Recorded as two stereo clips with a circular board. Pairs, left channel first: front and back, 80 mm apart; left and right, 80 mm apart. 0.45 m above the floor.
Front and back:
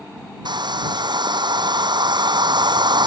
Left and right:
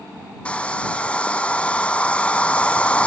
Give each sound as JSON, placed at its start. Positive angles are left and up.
{"t": 0.5, "sound": "a hair dryer", "azimuth_deg": 165}